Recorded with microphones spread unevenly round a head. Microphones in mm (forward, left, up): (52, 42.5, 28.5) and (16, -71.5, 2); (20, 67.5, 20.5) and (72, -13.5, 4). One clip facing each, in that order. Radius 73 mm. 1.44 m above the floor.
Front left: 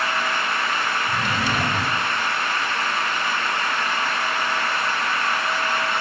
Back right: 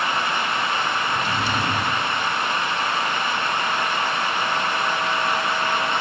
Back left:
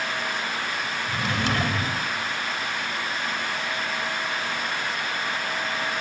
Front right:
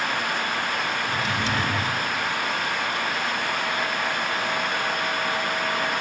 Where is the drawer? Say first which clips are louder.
Even, front right 1 dB; 100° left, 4 m.